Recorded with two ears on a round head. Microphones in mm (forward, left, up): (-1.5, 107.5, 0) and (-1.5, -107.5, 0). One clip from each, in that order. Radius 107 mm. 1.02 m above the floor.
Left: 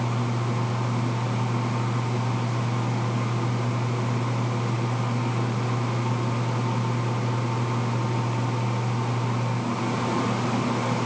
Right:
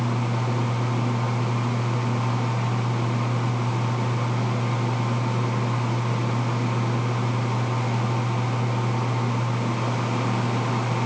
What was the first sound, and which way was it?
Only background noise.